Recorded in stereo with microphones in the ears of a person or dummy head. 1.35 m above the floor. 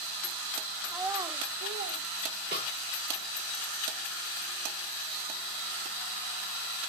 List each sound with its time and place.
0.9 s a child speaking: 5° left (ahead or behind), 0.5 m; by 2.0 s 40° right (ahead or behind), 1.0 m
2.5 s a snare drum: 25° right (ahead or behind), 4.5 m